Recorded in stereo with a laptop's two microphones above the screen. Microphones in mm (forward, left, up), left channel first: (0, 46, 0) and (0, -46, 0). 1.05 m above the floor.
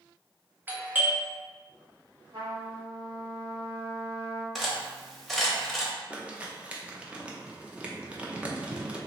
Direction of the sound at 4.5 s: Centre (ahead or behind).